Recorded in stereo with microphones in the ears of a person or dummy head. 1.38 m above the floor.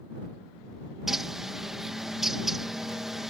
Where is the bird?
Centre (ahead or behind).